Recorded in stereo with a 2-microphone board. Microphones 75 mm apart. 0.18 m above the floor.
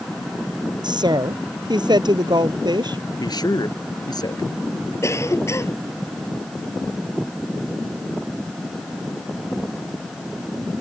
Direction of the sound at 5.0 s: 40° left (ahead or behind).